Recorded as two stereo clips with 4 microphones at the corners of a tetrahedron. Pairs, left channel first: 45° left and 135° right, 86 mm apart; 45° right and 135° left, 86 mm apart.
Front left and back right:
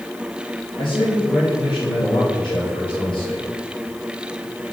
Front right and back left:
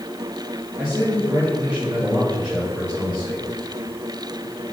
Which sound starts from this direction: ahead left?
A man speaking, at 0.8 s.